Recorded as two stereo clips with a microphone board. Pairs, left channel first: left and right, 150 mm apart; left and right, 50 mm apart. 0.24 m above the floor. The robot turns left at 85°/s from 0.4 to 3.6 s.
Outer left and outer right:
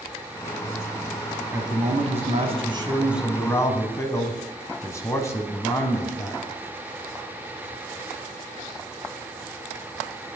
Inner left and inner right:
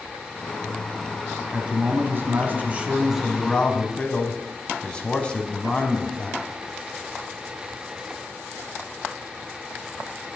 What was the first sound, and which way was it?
A man speaking, 30° right.